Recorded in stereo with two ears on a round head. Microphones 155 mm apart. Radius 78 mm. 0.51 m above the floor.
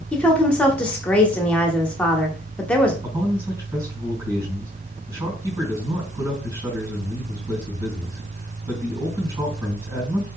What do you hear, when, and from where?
0.1 s a woman speaking: 5° left (ahead or behind), 0.9 m
3.0 s a man speaking: 25° right (ahead or behind), 3 m